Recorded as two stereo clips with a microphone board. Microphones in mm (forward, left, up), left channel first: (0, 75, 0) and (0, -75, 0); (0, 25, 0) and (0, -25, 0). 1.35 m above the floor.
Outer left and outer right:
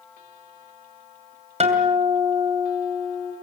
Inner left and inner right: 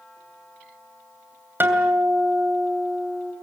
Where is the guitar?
45° right (ahead or behind), 2.5 m.